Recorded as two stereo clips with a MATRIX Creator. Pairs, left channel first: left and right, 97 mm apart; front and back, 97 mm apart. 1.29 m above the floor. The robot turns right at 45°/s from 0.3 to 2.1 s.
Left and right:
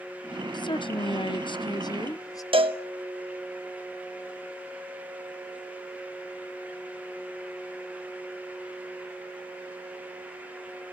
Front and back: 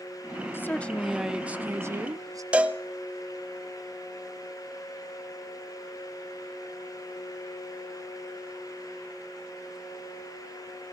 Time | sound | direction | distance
0.5 | a woman speaking | 65° left | 0.9 m
2.5 | a cowbell | 105° right | 1.1 m